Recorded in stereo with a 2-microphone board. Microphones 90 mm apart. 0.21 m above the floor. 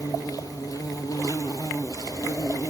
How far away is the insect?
About 1.4 m.